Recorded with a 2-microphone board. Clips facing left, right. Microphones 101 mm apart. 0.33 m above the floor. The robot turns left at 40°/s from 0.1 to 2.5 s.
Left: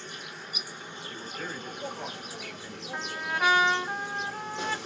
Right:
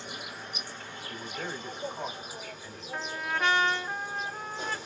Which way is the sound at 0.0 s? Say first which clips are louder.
Right 1 dB; 170° right.